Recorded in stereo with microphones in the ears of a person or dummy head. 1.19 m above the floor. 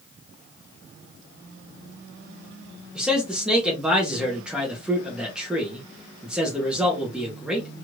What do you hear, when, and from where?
3.0 s a man speaking: 5° right (ahead or behind), 0.7 m